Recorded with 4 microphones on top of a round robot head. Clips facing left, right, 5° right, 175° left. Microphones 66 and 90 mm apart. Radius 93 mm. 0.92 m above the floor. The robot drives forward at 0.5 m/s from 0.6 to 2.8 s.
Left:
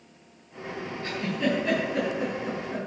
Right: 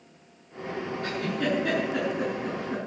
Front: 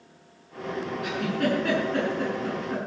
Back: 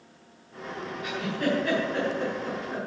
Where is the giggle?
35° right, 8 m; by 2.9 s 40° right, 7 m.